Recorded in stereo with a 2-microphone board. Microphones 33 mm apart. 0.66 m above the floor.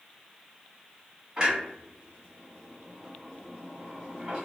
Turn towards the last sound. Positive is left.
turn(degrees=-20)  # may be behind; listen again after turning